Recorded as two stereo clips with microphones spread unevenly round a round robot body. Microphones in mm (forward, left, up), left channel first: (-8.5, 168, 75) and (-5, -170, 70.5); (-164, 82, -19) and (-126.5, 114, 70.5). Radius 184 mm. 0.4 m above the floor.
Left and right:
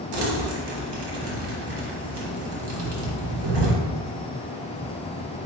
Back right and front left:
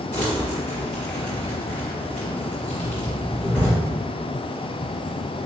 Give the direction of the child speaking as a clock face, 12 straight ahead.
No child speaking in this recording.